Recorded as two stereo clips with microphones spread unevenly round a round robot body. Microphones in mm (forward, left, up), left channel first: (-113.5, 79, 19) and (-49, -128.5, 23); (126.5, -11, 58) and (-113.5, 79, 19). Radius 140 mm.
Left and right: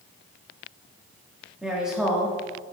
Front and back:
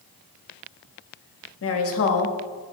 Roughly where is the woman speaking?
Ahead.